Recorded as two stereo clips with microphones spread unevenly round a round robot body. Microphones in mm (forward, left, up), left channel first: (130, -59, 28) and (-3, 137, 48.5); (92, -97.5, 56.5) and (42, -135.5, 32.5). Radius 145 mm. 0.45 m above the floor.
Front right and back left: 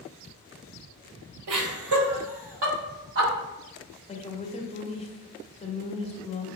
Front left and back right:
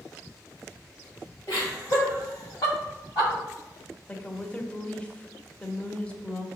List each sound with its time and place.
1.5 s laughter: 110° left, 1.9 m; by 3.3 s 95° left, 3 m
4.1 s a woman speaking: 55° right, 1.3 m